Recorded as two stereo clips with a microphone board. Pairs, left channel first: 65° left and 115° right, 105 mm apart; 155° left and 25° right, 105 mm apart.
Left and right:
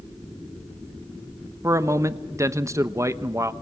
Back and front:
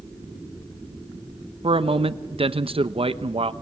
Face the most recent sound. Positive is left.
turn(degrees=-50)